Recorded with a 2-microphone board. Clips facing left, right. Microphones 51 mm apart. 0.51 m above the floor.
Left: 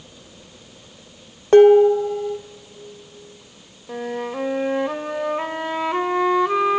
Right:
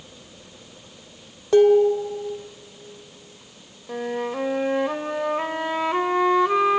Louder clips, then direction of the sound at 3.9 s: Even; centre (ahead or behind).